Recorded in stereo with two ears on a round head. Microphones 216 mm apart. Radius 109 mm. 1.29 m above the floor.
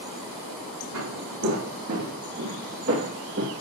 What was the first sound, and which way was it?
Footsteps, 75° right (ahead or behind).